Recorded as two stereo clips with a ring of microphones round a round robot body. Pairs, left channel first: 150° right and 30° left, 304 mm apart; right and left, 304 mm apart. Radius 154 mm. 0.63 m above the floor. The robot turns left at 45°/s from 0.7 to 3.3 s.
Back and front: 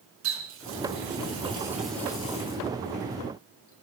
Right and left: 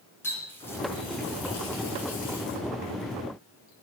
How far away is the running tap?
About 5 m.